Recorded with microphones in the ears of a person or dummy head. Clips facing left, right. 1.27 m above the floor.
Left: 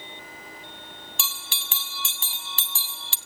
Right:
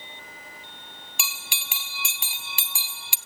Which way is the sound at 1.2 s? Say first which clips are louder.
Right 3 dB; 10° right (ahead or behind).